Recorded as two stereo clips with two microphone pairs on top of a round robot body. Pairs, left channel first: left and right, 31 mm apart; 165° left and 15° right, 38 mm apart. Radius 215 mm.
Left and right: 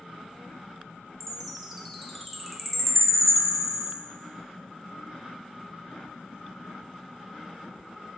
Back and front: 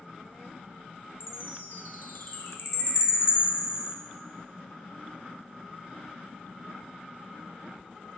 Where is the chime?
Straight behind, 0.6 m.